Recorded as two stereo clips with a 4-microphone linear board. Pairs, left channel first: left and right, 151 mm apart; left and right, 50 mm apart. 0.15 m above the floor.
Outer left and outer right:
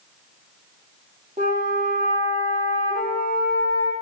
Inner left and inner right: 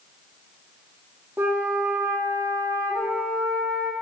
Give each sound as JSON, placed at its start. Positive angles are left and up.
{"t": 1.4, "sound": "a flute", "side_deg": -45, "distance_m": 5.5}